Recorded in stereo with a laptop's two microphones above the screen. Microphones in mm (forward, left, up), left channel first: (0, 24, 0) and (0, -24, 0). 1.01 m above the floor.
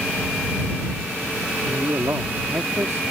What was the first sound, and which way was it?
A man speaking, 80° right.